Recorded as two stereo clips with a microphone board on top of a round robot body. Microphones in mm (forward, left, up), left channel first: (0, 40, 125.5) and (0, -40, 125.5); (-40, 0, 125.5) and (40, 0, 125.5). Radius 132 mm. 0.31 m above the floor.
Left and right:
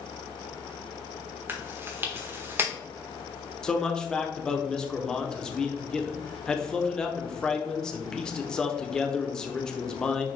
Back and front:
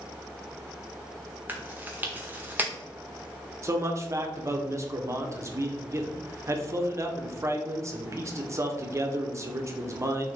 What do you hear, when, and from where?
1.5 s chewing: 50° right, 1.6 m
3.6 s a man speaking: 15° left, 1.2 m